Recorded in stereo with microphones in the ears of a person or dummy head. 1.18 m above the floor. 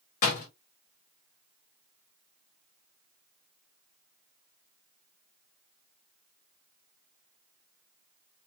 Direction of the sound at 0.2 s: 45° left (ahead or behind).